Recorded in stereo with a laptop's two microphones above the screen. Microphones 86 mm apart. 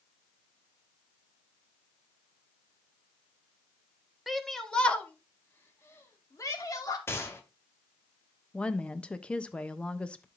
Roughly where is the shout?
Centre.